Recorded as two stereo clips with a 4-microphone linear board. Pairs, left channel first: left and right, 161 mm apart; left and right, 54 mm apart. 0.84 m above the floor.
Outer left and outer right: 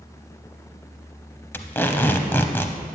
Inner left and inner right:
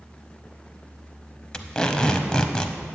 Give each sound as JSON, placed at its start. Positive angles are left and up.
{"t": 1.5, "sound": "tape being pulled", "side_deg": 15, "distance_m": 0.7}